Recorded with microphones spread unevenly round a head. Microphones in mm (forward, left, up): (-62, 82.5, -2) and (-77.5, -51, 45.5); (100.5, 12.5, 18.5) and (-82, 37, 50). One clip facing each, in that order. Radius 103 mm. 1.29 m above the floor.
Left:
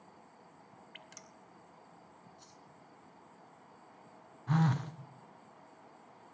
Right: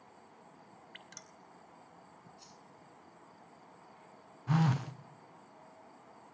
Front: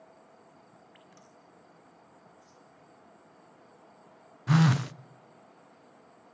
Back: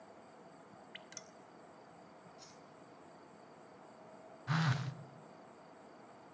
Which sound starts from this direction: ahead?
A phone buzzing, at 4.5 s.